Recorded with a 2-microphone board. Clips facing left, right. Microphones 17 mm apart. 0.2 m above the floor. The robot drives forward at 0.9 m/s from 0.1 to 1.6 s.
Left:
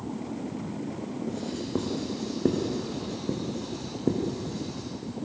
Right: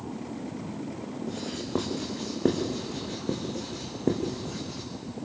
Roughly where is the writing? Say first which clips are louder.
Even; right.